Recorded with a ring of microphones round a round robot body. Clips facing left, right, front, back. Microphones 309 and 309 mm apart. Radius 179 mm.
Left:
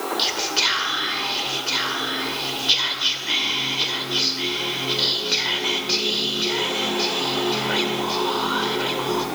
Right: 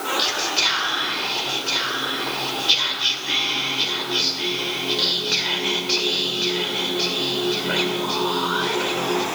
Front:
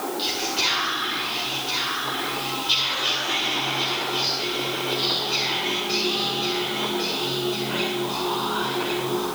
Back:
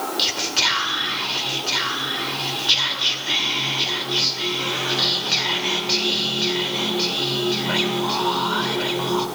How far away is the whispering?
About 2 m.